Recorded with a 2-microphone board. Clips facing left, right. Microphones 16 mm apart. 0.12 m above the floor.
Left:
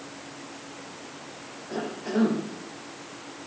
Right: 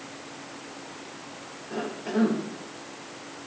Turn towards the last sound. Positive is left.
turn(degrees=20)  # may be behind; listen again after turning